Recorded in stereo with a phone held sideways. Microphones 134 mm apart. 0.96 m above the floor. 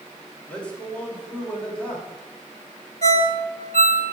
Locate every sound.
0.5 s a man speaking: 10° left (ahead or behind), 1.9 m
3.0 s a ringtone: 55° right (ahead or behind), 1.1 m